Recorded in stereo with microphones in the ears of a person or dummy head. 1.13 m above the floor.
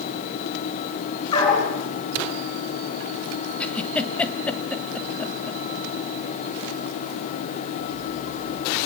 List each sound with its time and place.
1.3 s a dog barking: 20° left (ahead or behind), 7 m
3.6 s a giggle: 15° left (ahead or behind), 1.7 m